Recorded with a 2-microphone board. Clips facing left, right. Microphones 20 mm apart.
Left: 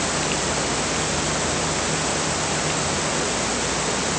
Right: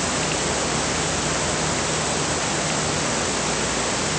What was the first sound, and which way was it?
Only background noise.